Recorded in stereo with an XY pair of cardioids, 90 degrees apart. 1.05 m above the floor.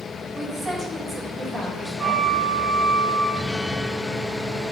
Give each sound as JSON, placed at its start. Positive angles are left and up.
{"t": 0.3, "sound": "a woman speaking", "azimuth_deg": -20, "distance_m": 3.0}
{"t": 2.0, "sound": "a flute", "azimuth_deg": -65, "distance_m": 3.5}
{"t": 3.3, "sound": "a guitar", "azimuth_deg": 15, "distance_m": 0.5}